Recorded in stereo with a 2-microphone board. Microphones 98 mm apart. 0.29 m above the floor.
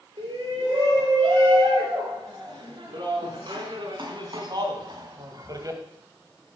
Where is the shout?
55° right (ahead or behind), 7 m; by 5.8 s 35° right (ahead or behind), 1.6 m.